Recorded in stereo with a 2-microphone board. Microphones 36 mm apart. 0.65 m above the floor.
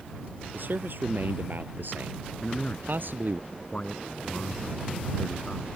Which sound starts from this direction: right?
A man speaking, at 0.5 s.